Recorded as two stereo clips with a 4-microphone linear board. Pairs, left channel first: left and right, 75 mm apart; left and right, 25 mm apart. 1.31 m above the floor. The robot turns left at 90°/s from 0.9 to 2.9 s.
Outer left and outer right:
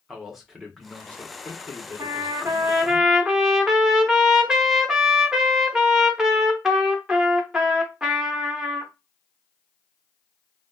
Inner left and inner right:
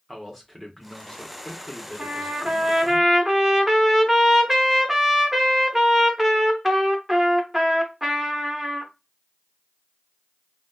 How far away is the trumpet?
About 0.6 m.